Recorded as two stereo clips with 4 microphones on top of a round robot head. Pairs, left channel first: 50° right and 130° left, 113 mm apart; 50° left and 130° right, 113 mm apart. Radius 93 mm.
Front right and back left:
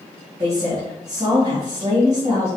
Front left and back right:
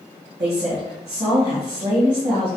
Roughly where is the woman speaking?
Behind.